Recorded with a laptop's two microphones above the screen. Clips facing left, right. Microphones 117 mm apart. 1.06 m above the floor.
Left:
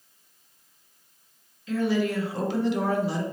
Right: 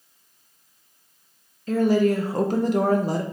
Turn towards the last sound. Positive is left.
turn(degrees=-45)  # may be behind; listen again after turning